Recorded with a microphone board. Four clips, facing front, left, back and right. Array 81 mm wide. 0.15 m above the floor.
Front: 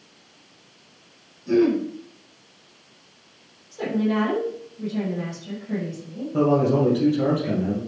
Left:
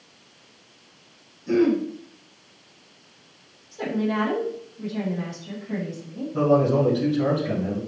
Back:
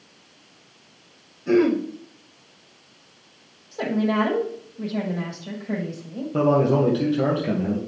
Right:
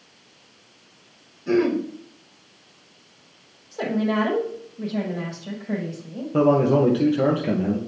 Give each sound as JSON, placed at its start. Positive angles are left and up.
{"t": 1.5, "sound": "throat clearing", "azimuth_deg": -145, "distance_m": 5.0}
{"t": 3.7, "sound": "a woman speaking", "azimuth_deg": -130, "distance_m": 5.5}
{"t": 6.3, "sound": "a man speaking", "azimuth_deg": -110, "distance_m": 4.0}